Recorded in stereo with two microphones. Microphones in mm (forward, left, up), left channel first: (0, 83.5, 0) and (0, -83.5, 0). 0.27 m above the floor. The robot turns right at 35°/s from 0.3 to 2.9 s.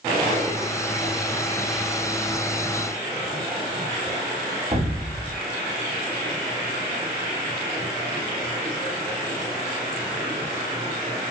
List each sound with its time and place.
4.7 s an explosion: 40° right (ahead or behind), 2.0 m